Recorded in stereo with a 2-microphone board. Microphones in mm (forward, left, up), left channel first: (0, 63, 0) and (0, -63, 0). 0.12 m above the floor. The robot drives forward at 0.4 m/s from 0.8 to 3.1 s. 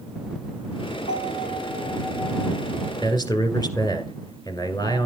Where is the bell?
85° left, 6.5 m; by 2.9 s 80° left, 7 m.